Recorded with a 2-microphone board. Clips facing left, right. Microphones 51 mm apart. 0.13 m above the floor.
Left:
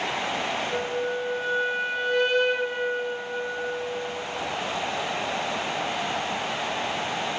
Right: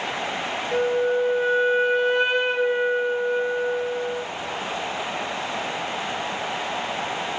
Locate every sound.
0.7 s a flute: 10° right (ahead or behind), 1.1 m